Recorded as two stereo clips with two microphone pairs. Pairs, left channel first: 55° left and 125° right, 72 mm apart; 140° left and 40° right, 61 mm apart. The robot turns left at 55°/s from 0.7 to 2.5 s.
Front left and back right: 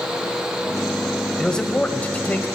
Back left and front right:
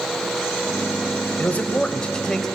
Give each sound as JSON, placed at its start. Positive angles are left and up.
{"t": 1.4, "sound": "a man speaking", "azimuth_deg": 120, "distance_m": 0.9}